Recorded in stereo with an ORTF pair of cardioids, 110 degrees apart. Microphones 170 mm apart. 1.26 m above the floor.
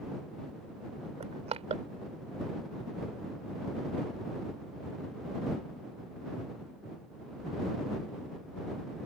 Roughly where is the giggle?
No giggle in this recording.